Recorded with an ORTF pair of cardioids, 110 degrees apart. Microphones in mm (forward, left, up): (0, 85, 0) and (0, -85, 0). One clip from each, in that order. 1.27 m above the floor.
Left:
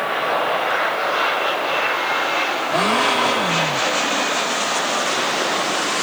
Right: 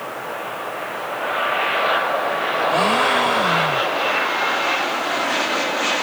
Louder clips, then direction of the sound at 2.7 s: Even; 5° left.